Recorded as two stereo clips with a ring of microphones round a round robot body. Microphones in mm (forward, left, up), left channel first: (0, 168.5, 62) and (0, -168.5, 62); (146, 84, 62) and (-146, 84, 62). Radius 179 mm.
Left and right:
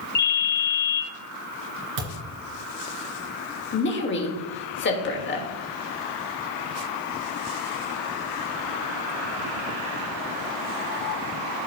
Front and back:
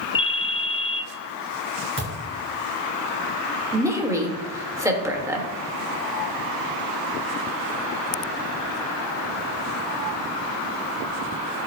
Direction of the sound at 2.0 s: 120° right.